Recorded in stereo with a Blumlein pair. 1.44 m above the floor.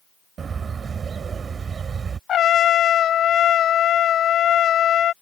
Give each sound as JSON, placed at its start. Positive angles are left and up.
{"t": 0.4, "sound": "a bird", "azimuth_deg": -20}
{"t": 2.3, "sound": "a trumpet", "azimuth_deg": 30}